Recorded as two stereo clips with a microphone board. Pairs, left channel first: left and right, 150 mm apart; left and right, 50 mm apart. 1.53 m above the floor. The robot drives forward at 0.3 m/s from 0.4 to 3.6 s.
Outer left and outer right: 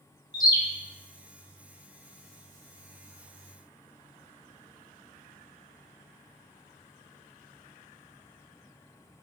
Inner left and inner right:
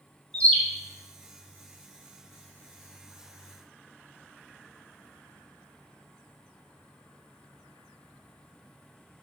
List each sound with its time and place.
0.3 s a bird: 25° left (ahead or behind), 0.8 m